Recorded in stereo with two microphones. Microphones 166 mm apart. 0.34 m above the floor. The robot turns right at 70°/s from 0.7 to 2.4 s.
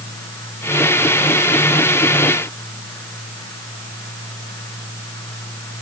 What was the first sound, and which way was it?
Only background noise.